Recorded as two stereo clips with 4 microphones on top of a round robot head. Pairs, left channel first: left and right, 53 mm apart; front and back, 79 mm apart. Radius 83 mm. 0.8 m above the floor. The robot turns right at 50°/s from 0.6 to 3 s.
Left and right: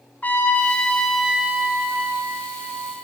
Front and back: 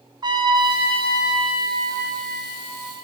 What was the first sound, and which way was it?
A trumpet, 150° left.